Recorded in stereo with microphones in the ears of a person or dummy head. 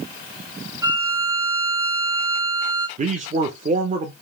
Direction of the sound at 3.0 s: 35° right (ahead or behind).